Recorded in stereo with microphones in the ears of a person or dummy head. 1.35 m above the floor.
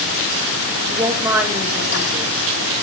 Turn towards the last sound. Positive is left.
turn(degrees=-10)  # may be behind; listen again after turning